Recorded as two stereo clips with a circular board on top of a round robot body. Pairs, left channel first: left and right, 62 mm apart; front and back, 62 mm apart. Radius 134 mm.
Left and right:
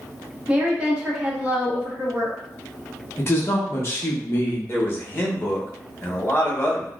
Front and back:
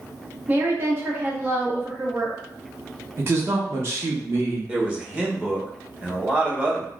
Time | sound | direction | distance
0.5 | a woman speaking | 155° right | 1.1 m
3.2 | a man speaking | 140° left | 1.1 m
4.7 | a man speaking | 120° left | 1.3 m